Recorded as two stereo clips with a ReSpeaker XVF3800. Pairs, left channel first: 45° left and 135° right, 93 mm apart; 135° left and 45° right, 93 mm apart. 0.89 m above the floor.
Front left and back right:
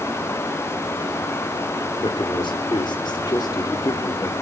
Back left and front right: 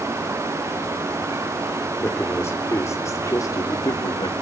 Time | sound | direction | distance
2.0 | a man speaking | 70° left | 3 m